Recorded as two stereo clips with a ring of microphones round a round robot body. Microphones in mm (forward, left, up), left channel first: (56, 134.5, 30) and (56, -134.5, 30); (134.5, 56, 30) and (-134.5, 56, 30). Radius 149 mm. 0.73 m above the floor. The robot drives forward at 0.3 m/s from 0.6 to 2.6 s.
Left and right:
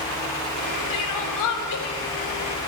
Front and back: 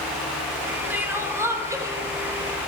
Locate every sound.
0.9 s crying: 95° left, 3.5 m; by 2.7 s 105° left, 3.5 m